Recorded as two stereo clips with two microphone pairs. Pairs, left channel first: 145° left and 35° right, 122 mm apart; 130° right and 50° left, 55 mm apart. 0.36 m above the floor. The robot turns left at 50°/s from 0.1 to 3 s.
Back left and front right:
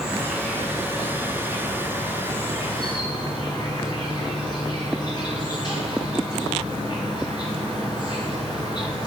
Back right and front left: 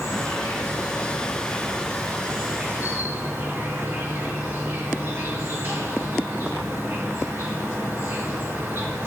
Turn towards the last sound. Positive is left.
turn(degrees=95)